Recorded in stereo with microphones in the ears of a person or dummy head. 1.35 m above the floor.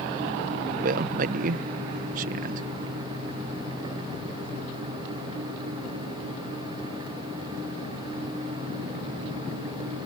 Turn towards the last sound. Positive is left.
turn(degrees=-55)  # may be behind; listen again after turning